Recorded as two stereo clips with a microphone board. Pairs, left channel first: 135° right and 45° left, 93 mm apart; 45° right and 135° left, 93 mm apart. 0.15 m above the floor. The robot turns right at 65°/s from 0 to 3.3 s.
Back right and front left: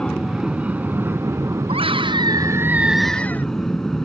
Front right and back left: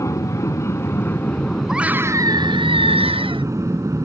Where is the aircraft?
60° right; by 4.1 s 140° left.